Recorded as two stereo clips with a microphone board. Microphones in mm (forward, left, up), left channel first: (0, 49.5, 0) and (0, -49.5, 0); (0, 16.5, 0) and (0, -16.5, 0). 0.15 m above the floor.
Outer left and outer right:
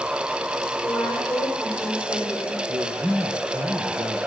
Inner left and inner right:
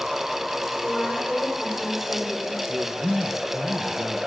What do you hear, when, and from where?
0.8 s a woman speaking: 15° left (ahead or behind), 6 m
2.7 s a man speaking: 30° right (ahead or behind), 2.5 m